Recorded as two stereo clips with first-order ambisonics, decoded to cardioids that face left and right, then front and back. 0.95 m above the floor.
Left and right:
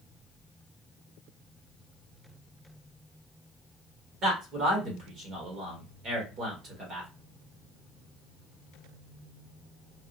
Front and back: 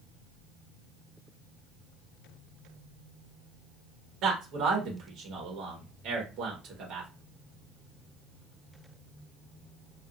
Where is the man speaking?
140° right, 1.4 m.